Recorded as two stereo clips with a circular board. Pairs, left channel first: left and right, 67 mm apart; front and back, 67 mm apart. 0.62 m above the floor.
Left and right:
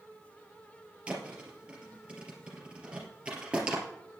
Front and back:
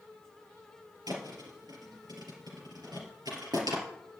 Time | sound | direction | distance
1.1 | a thud | 160° right | 3 m